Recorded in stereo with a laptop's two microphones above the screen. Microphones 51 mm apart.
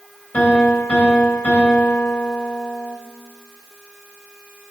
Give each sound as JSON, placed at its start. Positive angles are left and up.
{"t": 0.3, "sound": "a piano", "side_deg": 40, "distance_m": 1.9}